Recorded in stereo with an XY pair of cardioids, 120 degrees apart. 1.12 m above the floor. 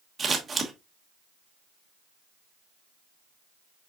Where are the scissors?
35° right, 1.1 m.